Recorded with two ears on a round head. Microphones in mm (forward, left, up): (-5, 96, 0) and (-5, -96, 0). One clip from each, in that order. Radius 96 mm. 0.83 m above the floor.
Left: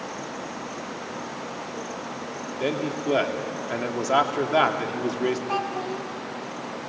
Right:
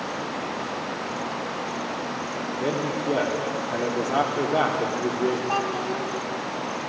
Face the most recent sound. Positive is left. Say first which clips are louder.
# right 2 dB
turn(degrees=-5)  # may be behind; listen again after turning